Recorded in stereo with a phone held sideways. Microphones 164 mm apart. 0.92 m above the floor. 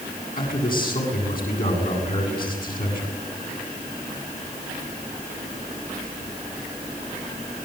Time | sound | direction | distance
0.4 | a man speaking | 60° left (ahead or behind) | 8.5 m